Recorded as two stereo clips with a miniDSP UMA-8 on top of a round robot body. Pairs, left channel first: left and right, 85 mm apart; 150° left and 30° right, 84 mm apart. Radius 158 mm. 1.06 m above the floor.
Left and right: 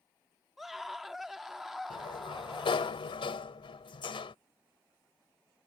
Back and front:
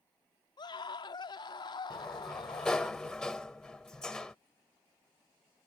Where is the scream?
Straight behind.